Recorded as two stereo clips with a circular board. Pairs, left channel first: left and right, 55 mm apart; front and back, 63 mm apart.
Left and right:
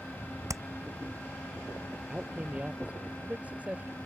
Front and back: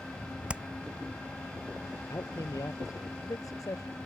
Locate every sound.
0.5 s hammering: 110° right
2.1 s a man speaking: 25° right